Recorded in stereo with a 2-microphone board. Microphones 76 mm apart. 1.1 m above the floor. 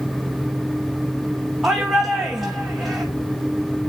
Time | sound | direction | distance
1.6 | a shout | 5° right (ahead or behind) | 1.8 m